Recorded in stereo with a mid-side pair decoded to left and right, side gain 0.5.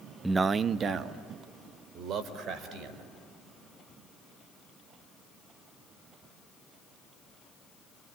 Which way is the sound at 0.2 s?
15° right.